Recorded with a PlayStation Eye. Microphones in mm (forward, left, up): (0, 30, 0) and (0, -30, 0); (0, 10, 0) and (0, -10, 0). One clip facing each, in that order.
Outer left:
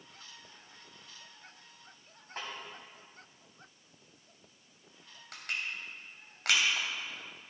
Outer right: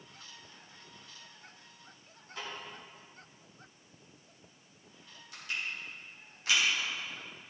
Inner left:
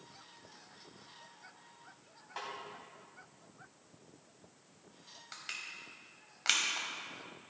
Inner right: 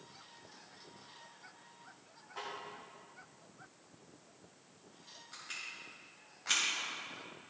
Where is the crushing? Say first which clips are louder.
Even, inner left 1 dB; 85° left, 3 m.